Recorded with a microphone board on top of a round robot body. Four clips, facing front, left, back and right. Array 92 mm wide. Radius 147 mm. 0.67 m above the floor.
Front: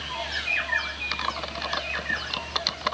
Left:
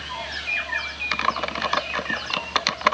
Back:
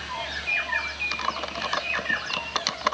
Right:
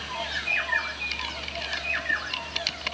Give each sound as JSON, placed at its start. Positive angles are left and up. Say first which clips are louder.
{"t": 1.1, "sound": "typing on a keyboard", "louder": "left 11 dB, back 1 dB", "azimuth_deg": 100}